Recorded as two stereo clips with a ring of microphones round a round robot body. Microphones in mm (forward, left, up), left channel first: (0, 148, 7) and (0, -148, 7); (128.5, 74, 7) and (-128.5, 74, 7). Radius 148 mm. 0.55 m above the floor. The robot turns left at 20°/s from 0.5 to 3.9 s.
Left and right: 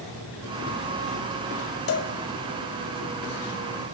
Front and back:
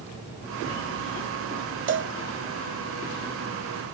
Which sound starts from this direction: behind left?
A cowbell, at 1.9 s.